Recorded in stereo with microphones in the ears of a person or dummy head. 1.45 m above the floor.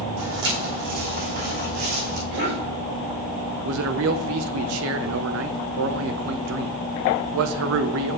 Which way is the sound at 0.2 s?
65° right (ahead or behind).